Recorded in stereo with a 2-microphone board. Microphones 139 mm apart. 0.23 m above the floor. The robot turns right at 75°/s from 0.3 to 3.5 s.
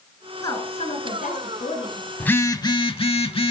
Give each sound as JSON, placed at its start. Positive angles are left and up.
{"t": 0.4, "sound": "a woman speaking", "azimuth_deg": 25, "distance_m": 2.5}
{"t": 2.2, "sound": "a phone buzzing", "azimuth_deg": 15, "distance_m": 0.6}